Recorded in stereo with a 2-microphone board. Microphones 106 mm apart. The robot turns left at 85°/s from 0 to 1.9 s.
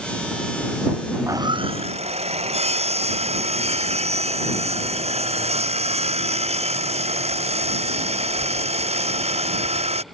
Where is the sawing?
20° right; by 10.0 s 85° right.